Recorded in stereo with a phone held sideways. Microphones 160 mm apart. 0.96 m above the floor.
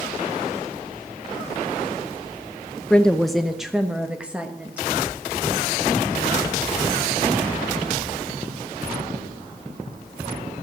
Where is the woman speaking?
5° left (ahead or behind), 0.5 m; by 4.9 s 10° right (ahead or behind), 1.4 m.